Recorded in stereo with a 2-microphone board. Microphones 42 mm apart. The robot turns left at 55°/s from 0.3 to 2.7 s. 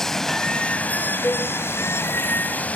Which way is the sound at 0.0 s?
170° left.